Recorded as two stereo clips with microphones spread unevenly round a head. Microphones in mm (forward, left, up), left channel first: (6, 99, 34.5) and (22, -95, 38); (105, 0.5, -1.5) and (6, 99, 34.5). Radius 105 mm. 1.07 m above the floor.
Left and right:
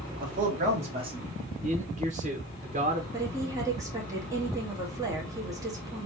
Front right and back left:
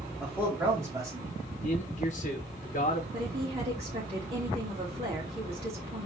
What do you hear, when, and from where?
0.2 s a man speaking: 135° right, 1.9 m; by 1.4 s 155° right, 1.8 m
1.6 s a man speaking: 30° right, 1.1 m
3.1 s a woman speaking: 160° right, 1.7 m